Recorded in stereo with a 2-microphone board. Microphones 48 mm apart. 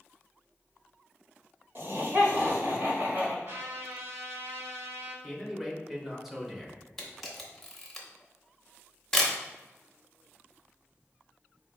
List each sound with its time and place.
1.8 s laughter: 50° right (ahead or behind), 1.2 m; by 3.4 s 40° right (ahead or behind), 1.7 m
3.5 s a trumpet: 55° right (ahead or behind), 1.7 m
5.2 s a man speaking: 5° right (ahead or behind), 1.0 m
7.0 s a camera shutter: 5° left (ahead or behind), 0.9 m